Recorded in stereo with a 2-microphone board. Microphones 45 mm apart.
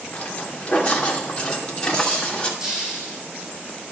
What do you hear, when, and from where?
0.1 s footsteps: 30° left (ahead or behind), 2 m; by 2.5 s 20° left (ahead or behind), 3.5 m
2.6 s a hiss: 10° right (ahead or behind), 4.5 m